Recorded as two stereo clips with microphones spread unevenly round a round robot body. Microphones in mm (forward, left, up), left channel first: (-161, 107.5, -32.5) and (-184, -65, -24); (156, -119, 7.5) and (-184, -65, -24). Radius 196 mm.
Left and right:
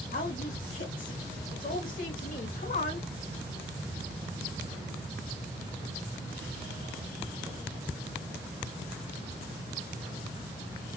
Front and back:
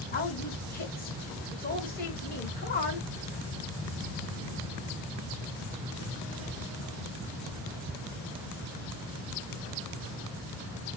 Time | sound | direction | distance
0.1 | a woman speaking | 55° left | 1.4 m